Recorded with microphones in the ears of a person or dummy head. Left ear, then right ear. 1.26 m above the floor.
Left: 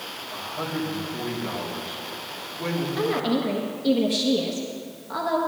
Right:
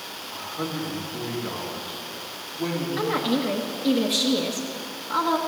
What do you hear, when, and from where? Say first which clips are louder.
0.3 s a man speaking: left 1 dB; centre (ahead or behind), 3 m
3.0 s a woman speaking: even; 15° right (ahead or behind), 1.2 m